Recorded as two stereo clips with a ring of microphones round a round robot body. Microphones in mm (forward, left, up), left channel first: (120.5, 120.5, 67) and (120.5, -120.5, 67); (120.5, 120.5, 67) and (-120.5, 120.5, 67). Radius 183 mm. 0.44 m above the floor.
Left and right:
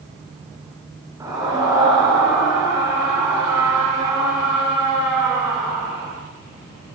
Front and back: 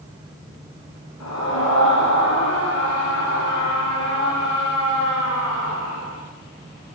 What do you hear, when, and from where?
1.2 s a scream: 15° right, 6.5 m